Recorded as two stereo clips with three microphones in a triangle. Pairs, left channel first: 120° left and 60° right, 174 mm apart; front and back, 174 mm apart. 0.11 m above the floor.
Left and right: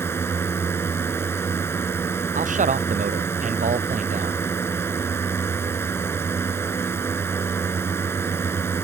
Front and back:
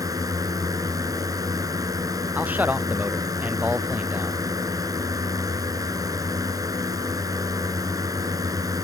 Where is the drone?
170° left.